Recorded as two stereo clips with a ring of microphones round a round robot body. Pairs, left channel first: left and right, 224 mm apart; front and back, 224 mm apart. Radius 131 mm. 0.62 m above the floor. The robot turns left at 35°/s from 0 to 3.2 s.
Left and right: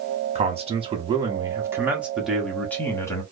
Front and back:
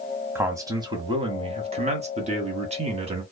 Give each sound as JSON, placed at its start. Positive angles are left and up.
{"t": 0.3, "sound": "a man speaking", "azimuth_deg": -110, "distance_m": 1.1}